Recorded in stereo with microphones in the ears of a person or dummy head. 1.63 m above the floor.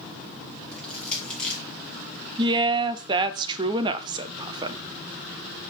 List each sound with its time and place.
0.7 s crushing: 5° left (ahead or behind), 1.9 m
2.4 s a woman speaking: 25° right (ahead or behind), 0.6 m